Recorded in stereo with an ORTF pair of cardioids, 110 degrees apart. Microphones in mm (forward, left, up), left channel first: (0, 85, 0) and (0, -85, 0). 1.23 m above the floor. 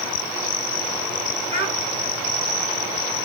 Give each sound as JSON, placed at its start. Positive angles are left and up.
{"t": 1.5, "sound": "a child speaking", "azimuth_deg": -40, "distance_m": 4.5}